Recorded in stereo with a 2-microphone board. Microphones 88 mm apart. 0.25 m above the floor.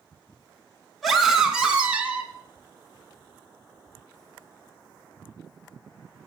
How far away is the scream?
About 2.5 m.